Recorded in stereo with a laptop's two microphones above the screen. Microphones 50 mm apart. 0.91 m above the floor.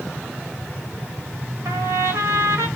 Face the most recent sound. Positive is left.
turn(degrees=-70)  # may be behind; listen again after turning